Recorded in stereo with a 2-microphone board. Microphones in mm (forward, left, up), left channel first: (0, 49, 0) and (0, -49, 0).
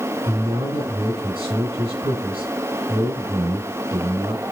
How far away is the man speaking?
About 2 m.